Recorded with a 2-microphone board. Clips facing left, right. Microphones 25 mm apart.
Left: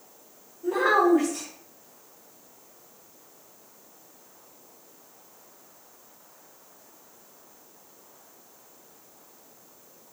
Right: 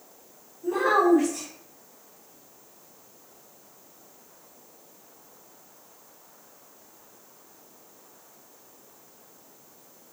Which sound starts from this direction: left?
A child speaking, at 0.6 s.